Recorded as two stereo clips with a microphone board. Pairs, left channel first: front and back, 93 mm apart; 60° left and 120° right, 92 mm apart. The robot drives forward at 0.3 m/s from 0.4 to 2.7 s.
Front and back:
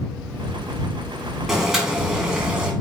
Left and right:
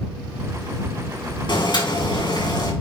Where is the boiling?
95° left, 3.5 m; by 2.7 s 100° left, 3.5 m.